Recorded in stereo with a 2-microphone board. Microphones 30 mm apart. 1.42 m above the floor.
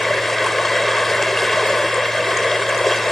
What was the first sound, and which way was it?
Running water, 5° left (ahead or behind).